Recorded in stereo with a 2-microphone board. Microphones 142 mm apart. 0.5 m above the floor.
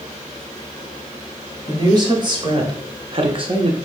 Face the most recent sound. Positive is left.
turn(degrees=-35)  # may be behind; listen again after turning